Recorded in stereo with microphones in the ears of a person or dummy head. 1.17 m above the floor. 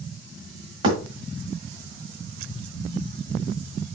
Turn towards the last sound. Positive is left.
turn(degrees=-30)  # may be behind; listen again after turning